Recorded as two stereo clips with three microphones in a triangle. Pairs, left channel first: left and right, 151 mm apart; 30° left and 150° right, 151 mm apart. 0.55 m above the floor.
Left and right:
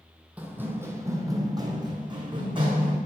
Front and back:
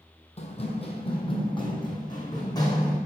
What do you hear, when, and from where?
0.4 s running footsteps: 10° right, 1.1 m; by 3.0 s 35° right, 2.5 m